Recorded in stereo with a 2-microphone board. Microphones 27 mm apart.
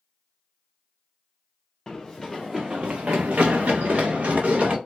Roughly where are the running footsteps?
Centre.